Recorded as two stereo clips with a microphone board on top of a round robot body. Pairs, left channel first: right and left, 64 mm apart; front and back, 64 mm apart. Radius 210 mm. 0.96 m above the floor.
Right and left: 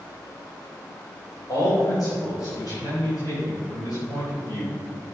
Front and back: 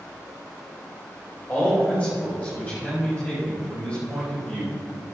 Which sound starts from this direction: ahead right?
A man speaking, at 1.5 s.